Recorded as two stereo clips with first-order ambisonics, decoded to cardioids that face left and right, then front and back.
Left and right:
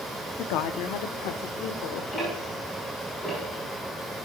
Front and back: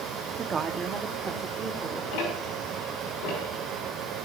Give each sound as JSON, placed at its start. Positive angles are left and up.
{"t": 0.4, "sound": "a woman speaking", "azimuth_deg": 115, "distance_m": 1.0}
{"t": 2.1, "sound": "ticking", "azimuth_deg": 10, "distance_m": 6.5}